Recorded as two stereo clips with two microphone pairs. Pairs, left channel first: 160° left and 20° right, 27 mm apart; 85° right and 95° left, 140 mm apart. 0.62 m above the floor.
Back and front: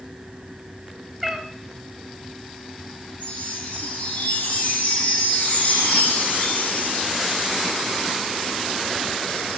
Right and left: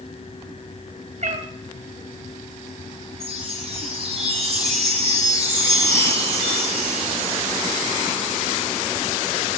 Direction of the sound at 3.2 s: 140° left.